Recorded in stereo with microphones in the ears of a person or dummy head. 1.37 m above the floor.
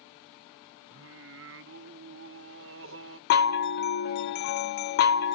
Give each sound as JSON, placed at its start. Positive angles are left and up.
{"t": 0.9, "sound": "singing", "side_deg": -55, "distance_m": 0.6}
{"t": 3.3, "sound": "a chime", "side_deg": 55, "distance_m": 0.5}